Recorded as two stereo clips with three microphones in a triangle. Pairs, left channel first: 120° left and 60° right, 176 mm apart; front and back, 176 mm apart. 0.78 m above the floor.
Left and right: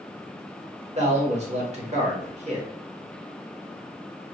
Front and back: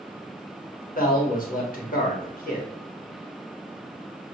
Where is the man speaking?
20° right, 1.4 m.